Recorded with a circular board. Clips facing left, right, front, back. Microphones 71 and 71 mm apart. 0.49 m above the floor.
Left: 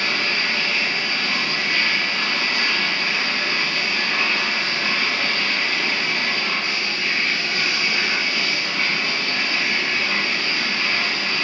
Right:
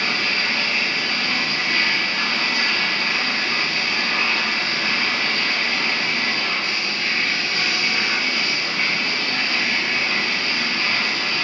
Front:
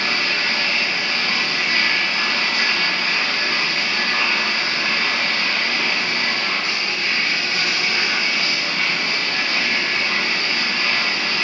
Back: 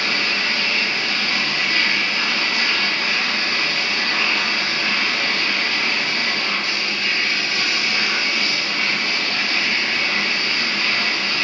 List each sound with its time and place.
0.0 s running water: straight ahead, 1.1 m